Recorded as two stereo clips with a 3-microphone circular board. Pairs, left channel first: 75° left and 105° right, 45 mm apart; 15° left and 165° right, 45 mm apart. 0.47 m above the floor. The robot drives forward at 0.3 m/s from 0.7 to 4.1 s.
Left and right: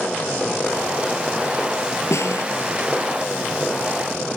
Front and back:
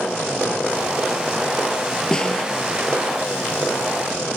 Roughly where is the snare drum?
Left.